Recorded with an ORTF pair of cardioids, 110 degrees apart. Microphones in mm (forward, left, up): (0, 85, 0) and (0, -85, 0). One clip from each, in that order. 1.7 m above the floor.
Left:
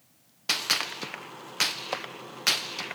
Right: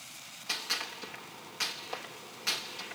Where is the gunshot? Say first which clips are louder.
Left 7 dB; 65° left, 1.2 m.